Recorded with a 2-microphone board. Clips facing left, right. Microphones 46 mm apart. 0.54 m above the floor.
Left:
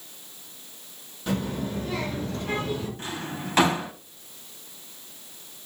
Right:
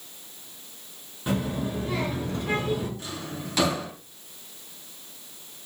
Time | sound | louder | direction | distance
1.3 | a child speaking | right 1 dB | 15° right (ahead or behind) | 5 m
3.0 | a drawer | left 2 dB | 35° left (ahead or behind) | 2.0 m